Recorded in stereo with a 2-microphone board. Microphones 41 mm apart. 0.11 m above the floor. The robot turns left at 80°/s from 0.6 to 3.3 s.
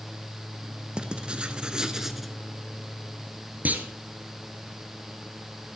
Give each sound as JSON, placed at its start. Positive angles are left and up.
{"t": 1.0, "sound": "writing", "side_deg": -25, "distance_m": 0.9}
{"t": 3.6, "sound": "a clunk", "side_deg": -45, "distance_m": 1.2}